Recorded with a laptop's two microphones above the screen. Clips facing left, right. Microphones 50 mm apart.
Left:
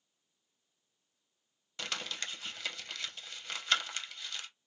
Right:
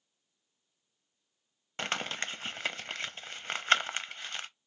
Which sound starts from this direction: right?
Crumpling, at 1.8 s.